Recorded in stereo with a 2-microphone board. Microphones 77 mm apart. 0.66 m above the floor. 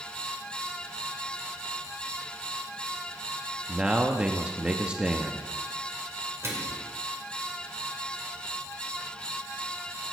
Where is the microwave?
35° right (ahead or behind), 2.0 m.